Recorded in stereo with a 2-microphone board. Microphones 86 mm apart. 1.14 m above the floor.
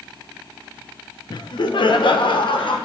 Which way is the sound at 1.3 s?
55° left (ahead or behind).